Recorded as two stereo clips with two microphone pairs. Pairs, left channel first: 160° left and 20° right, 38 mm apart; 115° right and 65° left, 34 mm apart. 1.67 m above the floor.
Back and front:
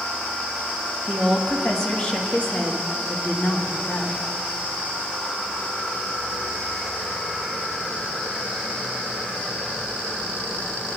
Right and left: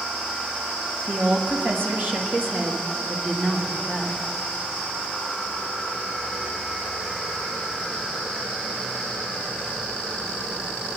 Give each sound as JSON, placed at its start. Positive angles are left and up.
{"t": 1.1, "sound": "a woman speaking", "azimuth_deg": 70, "distance_m": 2.5}